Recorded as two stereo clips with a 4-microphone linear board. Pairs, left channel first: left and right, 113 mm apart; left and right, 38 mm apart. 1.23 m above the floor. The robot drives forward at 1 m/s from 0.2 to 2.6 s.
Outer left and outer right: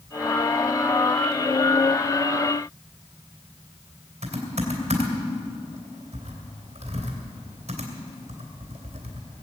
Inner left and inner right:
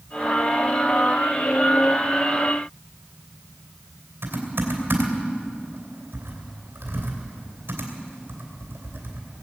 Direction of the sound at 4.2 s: 80° right.